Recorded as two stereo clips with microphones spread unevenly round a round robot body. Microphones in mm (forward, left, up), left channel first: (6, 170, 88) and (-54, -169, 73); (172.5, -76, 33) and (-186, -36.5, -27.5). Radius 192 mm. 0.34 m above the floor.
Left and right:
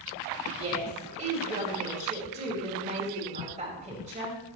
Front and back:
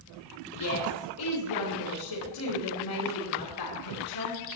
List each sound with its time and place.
0.5 s a woman speaking: 30° right, 5 m